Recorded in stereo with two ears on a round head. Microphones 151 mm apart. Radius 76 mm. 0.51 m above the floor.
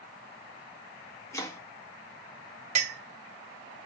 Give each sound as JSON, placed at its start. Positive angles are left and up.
{"t": 1.3, "sound": "chopping", "side_deg": 15, "distance_m": 1.3}
{"t": 2.8, "sound": "a clink", "side_deg": -45, "distance_m": 1.6}